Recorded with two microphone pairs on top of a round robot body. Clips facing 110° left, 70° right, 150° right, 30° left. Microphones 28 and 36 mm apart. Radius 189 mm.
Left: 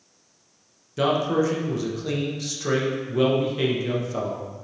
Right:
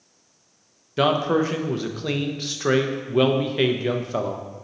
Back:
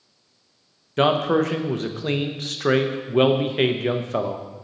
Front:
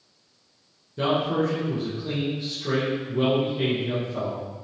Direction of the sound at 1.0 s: 135° right.